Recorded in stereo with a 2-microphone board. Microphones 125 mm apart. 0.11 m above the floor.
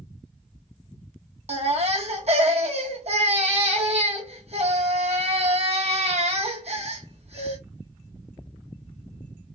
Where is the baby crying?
60° right (ahead or behind), 1.4 m.